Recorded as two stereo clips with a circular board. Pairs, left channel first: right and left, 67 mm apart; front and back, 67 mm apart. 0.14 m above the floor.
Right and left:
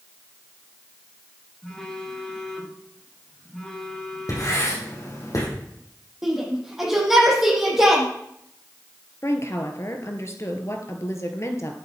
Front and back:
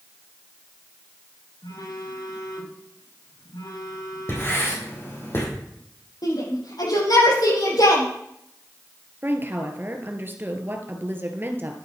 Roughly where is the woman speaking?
Behind right.